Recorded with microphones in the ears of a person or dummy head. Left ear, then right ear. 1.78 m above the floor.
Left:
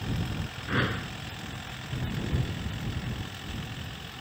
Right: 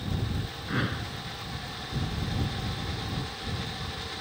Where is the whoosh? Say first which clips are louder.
Left 3 dB; 25° left (ahead or behind).